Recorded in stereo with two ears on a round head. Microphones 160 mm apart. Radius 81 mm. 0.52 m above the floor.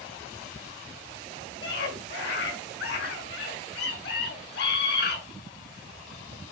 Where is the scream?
60° left (ahead or behind), 7.5 m.